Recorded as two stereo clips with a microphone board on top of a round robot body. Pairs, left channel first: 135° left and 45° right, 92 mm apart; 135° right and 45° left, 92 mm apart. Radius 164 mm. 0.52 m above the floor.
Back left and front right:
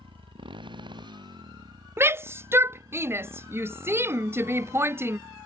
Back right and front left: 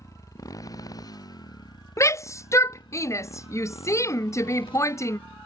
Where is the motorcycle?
80° right; by 5.5 s 110° right.